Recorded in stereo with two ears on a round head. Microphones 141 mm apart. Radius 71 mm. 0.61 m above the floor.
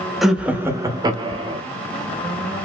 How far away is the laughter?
About 0.7 m.